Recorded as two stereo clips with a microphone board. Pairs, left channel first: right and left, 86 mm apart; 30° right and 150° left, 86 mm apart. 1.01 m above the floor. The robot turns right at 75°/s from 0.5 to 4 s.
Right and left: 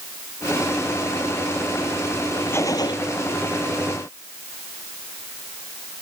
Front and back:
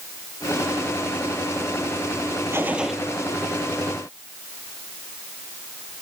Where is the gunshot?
150° right; by 3.0 s 115° right.